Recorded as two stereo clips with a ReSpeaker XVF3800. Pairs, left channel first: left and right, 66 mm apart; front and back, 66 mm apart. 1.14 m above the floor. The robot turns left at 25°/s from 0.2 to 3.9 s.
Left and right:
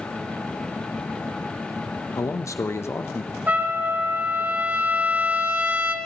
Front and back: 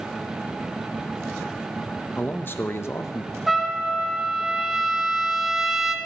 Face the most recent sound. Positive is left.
turn(degrees=-105)